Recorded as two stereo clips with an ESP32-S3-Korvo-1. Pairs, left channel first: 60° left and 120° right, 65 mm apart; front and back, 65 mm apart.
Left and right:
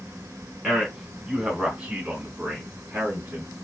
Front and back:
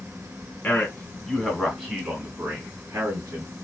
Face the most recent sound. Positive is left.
turn(degrees=-170)